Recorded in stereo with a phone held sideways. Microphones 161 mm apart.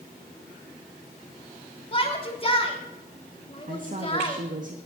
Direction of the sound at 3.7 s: 55° right (ahead or behind).